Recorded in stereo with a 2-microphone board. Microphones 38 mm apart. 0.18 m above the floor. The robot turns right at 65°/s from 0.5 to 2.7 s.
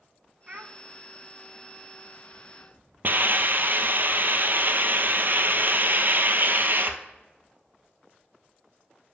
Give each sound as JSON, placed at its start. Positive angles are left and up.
{"t": 0.5, "sound": "a child speaking", "side_deg": -30, "distance_m": 0.7}
{"t": 3.0, "sound": "a hiss", "side_deg": -55, "distance_m": 0.8}